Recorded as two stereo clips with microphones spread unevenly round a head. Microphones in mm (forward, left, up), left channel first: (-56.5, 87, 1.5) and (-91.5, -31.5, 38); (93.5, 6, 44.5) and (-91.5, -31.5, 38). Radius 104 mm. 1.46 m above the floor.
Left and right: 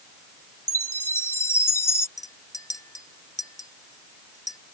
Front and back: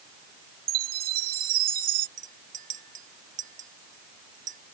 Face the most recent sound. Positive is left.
turn(degrees=140)